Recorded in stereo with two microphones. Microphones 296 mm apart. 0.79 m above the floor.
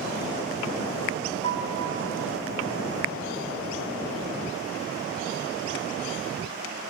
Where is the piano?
55° right (ahead or behind), 5 m.